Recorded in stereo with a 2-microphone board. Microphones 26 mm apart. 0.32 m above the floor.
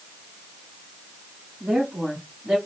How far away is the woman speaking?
About 2.5 m.